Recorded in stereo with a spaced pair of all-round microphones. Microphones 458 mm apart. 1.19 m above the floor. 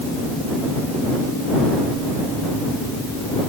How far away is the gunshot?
I don't hear a gunshot.